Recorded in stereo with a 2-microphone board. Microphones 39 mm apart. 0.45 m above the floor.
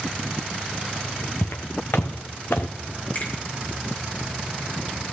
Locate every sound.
1.4 s footsteps: 75° left (ahead or behind), 1.8 m; by 2.7 s 60° left (ahead or behind), 1.5 m
3.1 s a finger snap: 45° left (ahead or behind), 8 m